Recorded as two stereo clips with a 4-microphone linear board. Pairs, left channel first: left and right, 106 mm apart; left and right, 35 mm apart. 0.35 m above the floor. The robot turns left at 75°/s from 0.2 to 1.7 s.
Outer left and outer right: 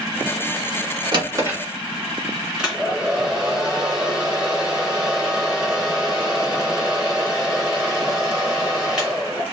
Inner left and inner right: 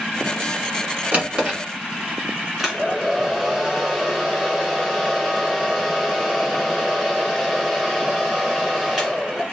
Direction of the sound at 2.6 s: 5° right (ahead or behind).